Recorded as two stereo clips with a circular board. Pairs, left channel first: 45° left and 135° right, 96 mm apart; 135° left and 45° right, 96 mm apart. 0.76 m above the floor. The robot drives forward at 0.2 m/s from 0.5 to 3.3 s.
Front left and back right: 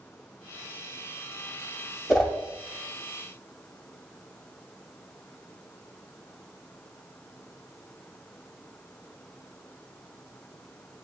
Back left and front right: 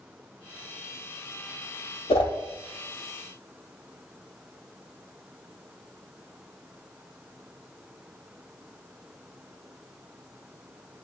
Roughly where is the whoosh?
Behind left.